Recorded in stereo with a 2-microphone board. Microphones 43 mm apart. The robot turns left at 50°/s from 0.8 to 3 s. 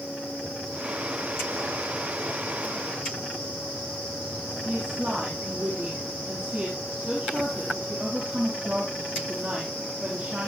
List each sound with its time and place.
4.7 s a woman speaking: 30° right (ahead or behind), 5 m